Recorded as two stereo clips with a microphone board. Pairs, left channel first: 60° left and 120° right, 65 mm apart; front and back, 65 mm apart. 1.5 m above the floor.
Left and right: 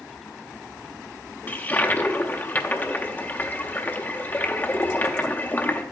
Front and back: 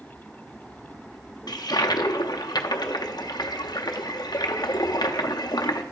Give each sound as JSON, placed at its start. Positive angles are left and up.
{"t": 1.5, "sound": "a toilet flushing", "azimuth_deg": 0, "distance_m": 0.6}